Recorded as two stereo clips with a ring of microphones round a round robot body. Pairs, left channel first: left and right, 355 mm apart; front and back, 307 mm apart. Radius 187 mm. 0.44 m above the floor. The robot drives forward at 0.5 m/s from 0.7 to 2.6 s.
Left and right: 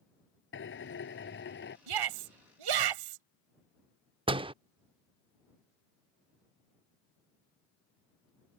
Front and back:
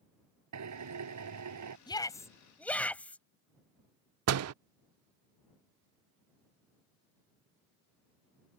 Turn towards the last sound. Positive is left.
turn(degrees=-165)